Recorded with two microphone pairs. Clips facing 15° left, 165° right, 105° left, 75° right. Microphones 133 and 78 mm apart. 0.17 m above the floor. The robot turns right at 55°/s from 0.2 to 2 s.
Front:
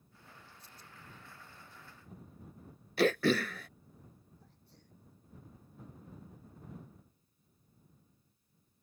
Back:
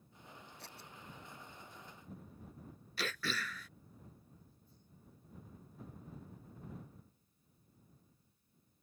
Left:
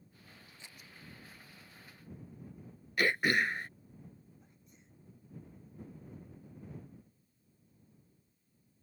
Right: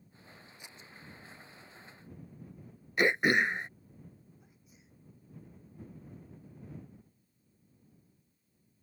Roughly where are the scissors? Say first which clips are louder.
Back 3 dB, right 2 dB; behind right.